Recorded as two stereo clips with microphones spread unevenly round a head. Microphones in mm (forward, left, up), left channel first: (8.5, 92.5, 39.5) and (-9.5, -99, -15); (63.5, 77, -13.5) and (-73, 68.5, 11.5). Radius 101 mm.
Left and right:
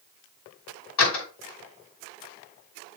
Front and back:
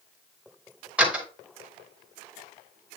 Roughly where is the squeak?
No squeak in this recording.